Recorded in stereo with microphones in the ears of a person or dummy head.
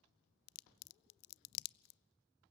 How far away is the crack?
About 0.6 m.